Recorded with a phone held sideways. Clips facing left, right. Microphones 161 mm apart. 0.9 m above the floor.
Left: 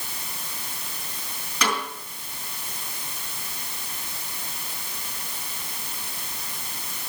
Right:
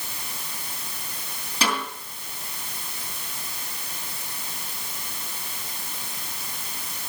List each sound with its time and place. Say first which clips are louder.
1.6 s a snare drum: even; 30° right (ahead or behind), 8 m